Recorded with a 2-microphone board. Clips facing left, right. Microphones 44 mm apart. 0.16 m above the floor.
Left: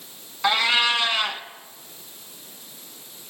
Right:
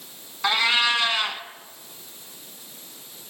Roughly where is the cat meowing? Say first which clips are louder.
Left 1 dB; centre.